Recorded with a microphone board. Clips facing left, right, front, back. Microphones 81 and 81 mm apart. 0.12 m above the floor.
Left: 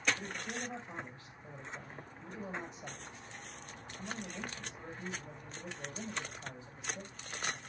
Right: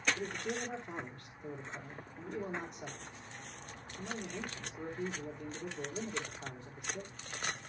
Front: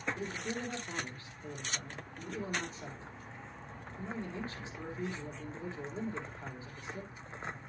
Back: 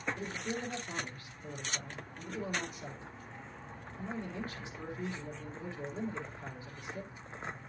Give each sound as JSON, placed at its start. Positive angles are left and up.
{"t": 0.2, "sound": "a man speaking", "azimuth_deg": -60, "distance_m": 4.0}